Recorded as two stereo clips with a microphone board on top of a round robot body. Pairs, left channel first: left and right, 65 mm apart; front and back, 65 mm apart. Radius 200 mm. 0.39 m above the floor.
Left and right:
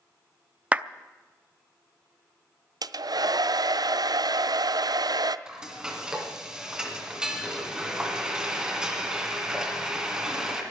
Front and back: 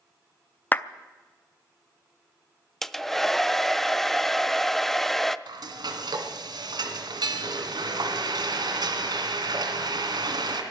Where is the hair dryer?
85° right, 0.7 m.